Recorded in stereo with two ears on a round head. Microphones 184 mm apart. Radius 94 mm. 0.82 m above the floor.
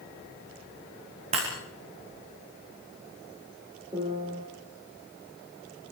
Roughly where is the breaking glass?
Right.